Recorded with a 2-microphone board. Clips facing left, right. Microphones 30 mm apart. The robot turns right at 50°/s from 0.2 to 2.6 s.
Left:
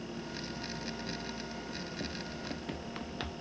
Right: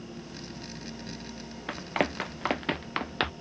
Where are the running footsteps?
70° right (ahead or behind); by 3.3 s 40° right (ahead or behind).